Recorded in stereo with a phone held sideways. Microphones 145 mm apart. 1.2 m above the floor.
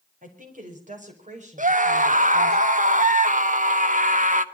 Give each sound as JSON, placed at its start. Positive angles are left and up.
{"t": 0.2, "sound": "a woman speaking", "side_deg": -75, "distance_m": 5.5}
{"t": 1.6, "sound": "a scream", "side_deg": -70, "distance_m": 1.4}